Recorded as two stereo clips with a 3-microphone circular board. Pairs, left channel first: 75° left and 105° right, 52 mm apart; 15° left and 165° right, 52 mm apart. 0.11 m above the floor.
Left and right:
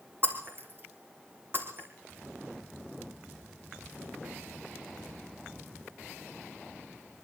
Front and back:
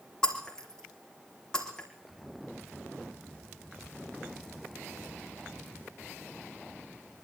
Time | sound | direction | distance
0.2 | breaking glass | 60° right | 4 m